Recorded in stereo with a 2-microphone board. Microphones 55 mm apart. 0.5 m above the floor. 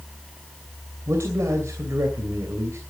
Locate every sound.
1.1 s a man speaking: 60° right (ahead or behind), 2.5 m